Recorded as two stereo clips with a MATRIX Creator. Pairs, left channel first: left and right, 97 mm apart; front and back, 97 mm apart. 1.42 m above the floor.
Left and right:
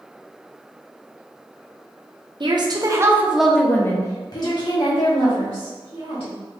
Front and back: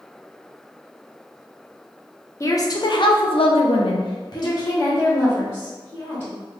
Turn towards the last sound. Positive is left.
turn(degrees=65)